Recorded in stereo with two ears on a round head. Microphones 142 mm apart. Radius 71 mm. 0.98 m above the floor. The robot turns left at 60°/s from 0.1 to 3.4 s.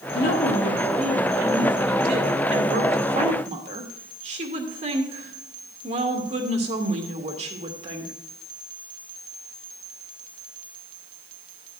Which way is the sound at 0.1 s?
60° left.